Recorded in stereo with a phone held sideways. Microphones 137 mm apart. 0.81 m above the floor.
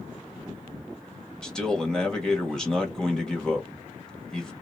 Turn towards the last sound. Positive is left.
turn(degrees=5)  # may be behind; listen again after turning